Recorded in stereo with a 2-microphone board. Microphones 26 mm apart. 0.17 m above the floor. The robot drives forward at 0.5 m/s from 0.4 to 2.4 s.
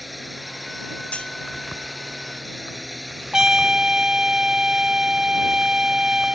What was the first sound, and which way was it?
A drone, centre (ahead or behind).